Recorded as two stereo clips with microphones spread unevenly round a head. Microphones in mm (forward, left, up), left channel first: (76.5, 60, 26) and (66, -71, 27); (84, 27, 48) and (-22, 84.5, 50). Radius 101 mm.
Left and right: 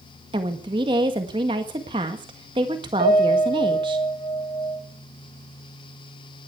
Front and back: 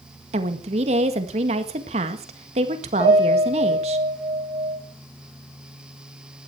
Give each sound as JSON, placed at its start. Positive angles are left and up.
{"t": 0.3, "sound": "a woman speaking", "azimuth_deg": -160, "distance_m": 1.7}
{"t": 3.0, "sound": "a piano", "azimuth_deg": -120, "distance_m": 10.0}